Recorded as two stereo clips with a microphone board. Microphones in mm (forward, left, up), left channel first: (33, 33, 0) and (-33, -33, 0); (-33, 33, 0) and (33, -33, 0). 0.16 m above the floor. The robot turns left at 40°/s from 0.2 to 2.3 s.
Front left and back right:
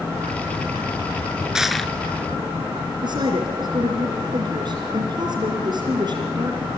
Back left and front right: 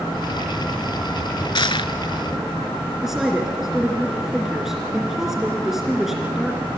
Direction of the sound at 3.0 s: 130° right.